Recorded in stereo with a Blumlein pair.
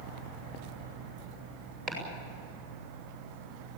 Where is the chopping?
35° right, 8 m.